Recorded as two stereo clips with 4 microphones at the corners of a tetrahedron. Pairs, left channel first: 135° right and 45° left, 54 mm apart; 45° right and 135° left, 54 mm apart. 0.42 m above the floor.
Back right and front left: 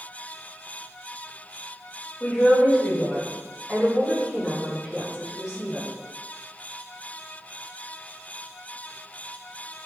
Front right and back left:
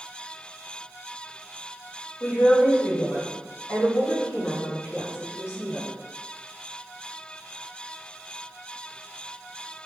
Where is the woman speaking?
75° right, 1.8 m; by 5.9 s 35° right, 3 m.